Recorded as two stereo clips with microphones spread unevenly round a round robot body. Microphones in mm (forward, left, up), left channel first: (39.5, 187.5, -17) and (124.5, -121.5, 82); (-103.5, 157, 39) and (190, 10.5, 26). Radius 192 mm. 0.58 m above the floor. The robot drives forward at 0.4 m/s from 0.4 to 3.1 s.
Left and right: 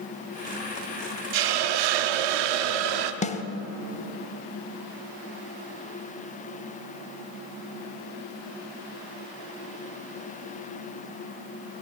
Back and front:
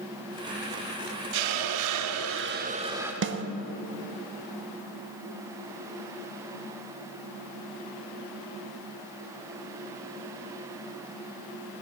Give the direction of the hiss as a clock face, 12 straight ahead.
2 o'clock.